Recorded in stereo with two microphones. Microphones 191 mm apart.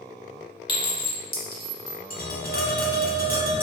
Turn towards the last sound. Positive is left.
turn(degrees=50)  # may be behind; listen again after turning